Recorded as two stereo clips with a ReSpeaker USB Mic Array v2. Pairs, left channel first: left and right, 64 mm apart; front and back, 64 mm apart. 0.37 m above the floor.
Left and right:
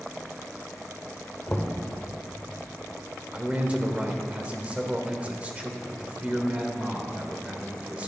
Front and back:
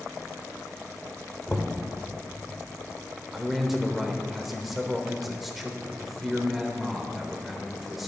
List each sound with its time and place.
1.5 s knocking: 45° left, 0.8 m
3.3 s a man speaking: 95° right, 1.0 m